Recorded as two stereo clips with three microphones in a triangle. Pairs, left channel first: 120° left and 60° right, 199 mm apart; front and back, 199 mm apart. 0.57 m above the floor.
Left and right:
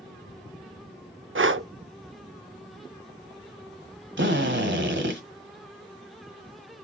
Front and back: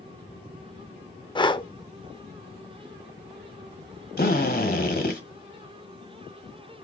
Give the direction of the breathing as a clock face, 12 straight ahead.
2 o'clock.